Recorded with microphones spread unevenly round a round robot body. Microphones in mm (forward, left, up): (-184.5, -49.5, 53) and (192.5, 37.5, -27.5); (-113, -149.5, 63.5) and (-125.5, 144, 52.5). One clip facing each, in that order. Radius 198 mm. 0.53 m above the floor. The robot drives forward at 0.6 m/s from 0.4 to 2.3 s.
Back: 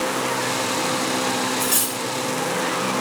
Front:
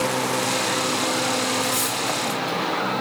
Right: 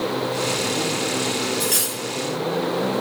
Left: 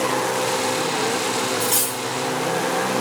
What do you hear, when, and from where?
1.6 s cutlery clinking: 165° right, 1.6 m